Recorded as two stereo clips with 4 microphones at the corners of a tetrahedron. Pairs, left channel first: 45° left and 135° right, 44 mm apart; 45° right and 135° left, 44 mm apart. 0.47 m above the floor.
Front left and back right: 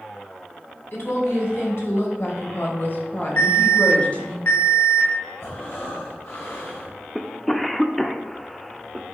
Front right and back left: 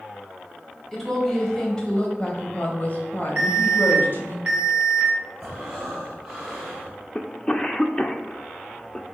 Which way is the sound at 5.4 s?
55° left.